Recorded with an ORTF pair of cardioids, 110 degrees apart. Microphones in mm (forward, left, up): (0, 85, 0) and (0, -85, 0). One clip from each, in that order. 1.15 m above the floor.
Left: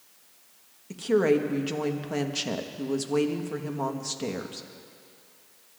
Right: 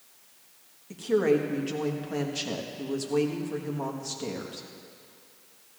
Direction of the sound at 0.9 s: 25° left.